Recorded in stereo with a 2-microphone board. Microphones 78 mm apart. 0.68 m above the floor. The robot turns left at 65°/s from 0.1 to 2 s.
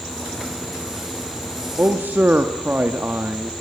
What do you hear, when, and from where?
1.8 s a man speaking: 30° right (ahead or behind), 1.1 m; by 3.5 s 25° right (ahead or behind), 1.1 m